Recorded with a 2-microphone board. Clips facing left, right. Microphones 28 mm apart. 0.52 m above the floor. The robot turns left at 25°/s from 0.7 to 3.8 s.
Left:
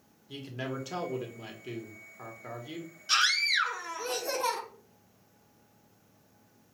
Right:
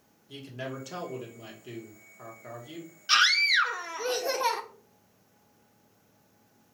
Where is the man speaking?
10° left (ahead or behind), 1.0 m; by 2.9 s 20° left (ahead or behind), 1.0 m.